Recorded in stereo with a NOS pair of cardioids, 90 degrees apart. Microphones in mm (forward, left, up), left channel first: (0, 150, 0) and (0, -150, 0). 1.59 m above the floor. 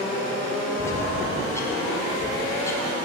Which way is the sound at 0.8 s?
10° left.